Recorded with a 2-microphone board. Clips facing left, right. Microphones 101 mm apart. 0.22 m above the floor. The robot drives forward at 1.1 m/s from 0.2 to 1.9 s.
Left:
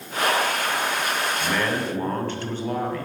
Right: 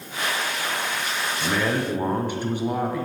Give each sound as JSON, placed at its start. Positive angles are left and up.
{"t": 1.4, "sound": "a man speaking", "side_deg": -10, "distance_m": 1.9}